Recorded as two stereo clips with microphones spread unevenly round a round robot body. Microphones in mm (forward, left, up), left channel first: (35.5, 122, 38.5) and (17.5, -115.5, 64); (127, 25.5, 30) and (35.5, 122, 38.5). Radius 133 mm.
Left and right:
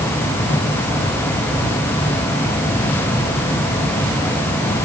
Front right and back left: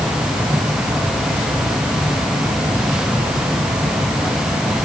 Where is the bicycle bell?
I don't hear a bicycle bell.